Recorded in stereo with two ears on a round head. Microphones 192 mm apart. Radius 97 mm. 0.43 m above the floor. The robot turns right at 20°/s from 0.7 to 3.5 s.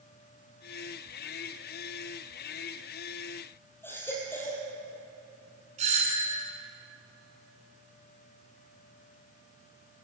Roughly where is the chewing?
I don't hear chewing.